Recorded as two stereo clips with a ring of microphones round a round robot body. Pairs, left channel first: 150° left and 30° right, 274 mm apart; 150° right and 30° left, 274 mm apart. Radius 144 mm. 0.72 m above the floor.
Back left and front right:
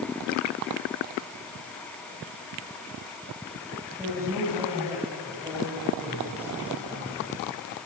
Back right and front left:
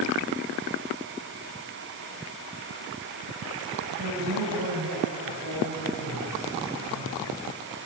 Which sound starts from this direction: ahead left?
A man speaking, at 3.9 s.